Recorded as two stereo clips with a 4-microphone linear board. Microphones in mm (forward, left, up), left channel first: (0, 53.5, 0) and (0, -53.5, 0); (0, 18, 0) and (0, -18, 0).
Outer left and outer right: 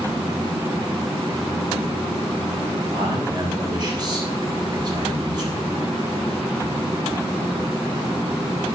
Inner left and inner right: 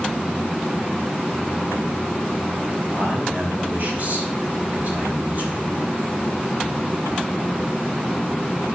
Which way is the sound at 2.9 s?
45° right (ahead or behind).